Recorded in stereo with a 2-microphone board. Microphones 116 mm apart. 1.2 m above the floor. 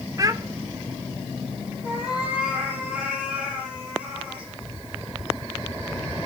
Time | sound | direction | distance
0.2 | a child speaking | 30° right (ahead or behind) | 0.9 m
1.8 | a cat meowing | 5° right (ahead or behind) | 7 m